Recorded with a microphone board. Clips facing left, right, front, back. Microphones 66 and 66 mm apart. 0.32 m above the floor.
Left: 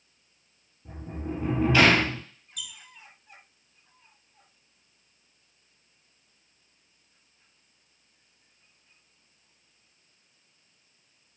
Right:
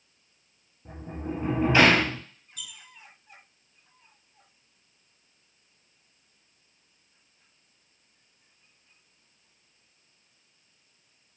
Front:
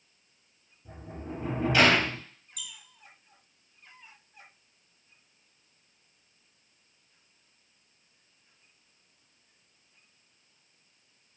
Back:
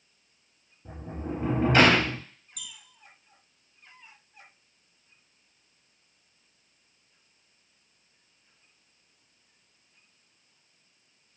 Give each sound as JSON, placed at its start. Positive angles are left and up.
{"t": 0.8, "sound": "a sliding door", "azimuth_deg": -145, "distance_m": 0.7}
{"t": 2.6, "sound": "a squeak", "azimuth_deg": -150, "distance_m": 0.6}